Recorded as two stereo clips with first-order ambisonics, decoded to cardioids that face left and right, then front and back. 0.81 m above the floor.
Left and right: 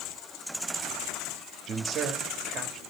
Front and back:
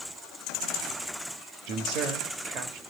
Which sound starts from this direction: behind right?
A man speaking, at 1.7 s.